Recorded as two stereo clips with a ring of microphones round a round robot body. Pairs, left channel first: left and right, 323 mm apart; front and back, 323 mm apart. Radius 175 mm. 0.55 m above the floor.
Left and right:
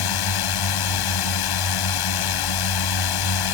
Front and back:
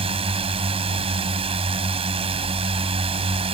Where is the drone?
105° left.